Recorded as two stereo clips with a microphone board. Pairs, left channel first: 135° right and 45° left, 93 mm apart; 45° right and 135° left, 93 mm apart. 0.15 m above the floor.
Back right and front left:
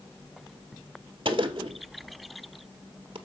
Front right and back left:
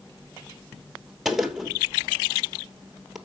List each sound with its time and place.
1.2 s a gunshot: 50° left, 1.0 m